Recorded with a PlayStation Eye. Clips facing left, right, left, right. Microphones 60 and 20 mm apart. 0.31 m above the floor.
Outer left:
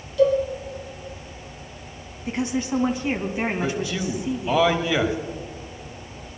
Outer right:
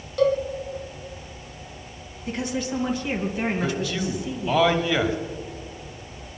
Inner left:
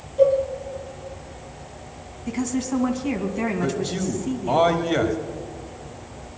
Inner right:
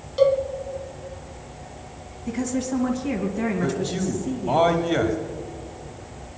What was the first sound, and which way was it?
A cowbell, 60° right (ahead or behind).